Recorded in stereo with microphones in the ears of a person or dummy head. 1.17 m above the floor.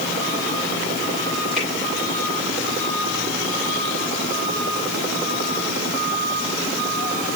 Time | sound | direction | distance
1.6 | a finger snap | centre (ahead or behind) | 9 m